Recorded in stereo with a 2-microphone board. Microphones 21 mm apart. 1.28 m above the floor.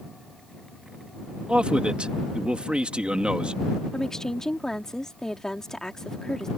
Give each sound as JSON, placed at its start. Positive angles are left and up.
{"t": 1.5, "sound": "a man speaking", "side_deg": -60}
{"t": 3.9, "sound": "a woman speaking", "side_deg": 25}